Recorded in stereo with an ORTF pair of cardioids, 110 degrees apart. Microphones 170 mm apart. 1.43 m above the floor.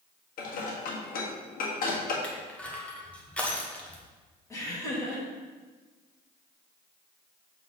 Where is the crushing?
10° left, 1.3 m.